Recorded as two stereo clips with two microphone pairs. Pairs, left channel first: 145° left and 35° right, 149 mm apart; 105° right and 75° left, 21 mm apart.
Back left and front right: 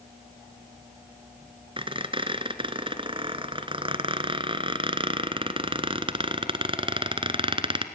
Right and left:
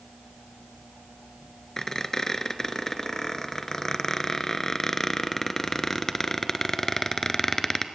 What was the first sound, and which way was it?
A squeak, 55° right.